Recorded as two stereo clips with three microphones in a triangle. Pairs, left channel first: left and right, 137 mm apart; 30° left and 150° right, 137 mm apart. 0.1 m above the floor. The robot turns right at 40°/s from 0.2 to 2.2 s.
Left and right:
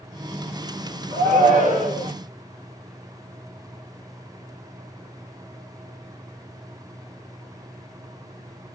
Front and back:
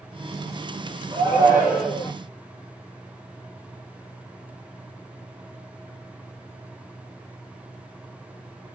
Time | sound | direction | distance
1.1 | a shout | 95° right | 3.5 m